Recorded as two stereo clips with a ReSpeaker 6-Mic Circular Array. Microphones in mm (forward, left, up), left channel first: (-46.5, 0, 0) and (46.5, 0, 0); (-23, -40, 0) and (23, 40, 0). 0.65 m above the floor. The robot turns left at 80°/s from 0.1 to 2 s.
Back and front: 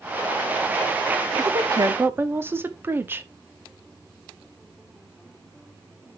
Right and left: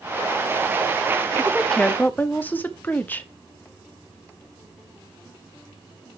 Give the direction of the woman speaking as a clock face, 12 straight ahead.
12 o'clock.